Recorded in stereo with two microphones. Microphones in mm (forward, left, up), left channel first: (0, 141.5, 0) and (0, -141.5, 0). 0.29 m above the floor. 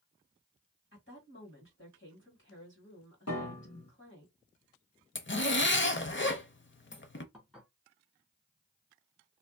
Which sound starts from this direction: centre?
Dishes clattering, at 7.3 s.